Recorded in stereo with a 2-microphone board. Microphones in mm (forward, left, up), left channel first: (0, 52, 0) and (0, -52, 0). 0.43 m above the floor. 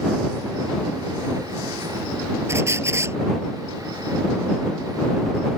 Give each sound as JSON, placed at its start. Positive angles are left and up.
{"t": 2.5, "sound": "a squeak", "side_deg": -25}